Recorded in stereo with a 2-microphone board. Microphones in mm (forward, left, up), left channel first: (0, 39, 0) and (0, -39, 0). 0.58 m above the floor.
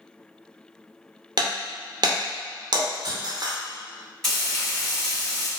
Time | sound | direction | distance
1.4 | breaking glass | 65° right (ahead or behind) | 0.6 m
4.2 | frying | 5° left (ahead or behind) | 1.3 m